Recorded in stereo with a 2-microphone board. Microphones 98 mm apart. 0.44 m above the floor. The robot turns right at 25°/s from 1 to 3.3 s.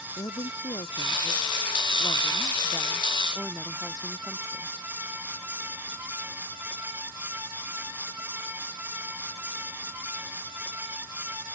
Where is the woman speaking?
120° left; by 4.8 s straight behind.